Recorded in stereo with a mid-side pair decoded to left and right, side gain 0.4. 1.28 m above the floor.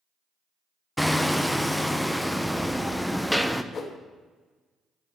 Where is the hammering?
5° left, 0.6 m.